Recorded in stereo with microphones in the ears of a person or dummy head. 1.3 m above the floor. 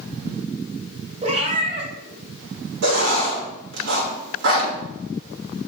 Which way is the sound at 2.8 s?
65° right (ahead or behind).